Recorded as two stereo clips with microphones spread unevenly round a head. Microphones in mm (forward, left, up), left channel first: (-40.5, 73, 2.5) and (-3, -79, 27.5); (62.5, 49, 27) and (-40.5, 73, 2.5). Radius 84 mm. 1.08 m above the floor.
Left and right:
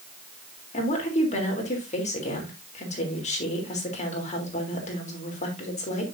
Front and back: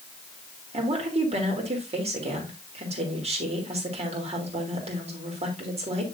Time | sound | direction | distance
0.7 | a woman speaking | 150° left | 3.5 m